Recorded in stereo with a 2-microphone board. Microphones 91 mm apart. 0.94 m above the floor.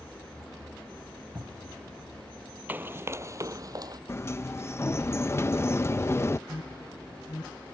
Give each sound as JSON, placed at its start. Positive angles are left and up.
{"t": 1.4, "sound": "a cupboard door", "side_deg": -40}
{"t": 2.7, "sound": "running footsteps", "side_deg": -20}
{"t": 4.1, "sound": "a sliding door", "side_deg": 30}
{"t": 6.5, "sound": "an alarm", "side_deg": 70}